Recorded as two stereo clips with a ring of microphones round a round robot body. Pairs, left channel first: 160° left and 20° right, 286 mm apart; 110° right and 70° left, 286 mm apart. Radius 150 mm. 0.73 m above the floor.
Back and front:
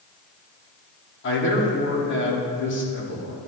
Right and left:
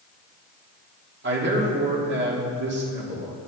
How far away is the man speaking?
About 2 m.